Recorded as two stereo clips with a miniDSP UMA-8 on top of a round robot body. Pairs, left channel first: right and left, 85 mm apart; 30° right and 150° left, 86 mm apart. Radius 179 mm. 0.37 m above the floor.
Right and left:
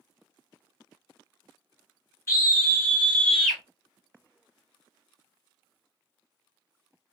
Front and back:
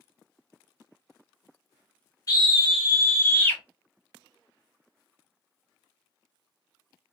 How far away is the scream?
About 1.9 m.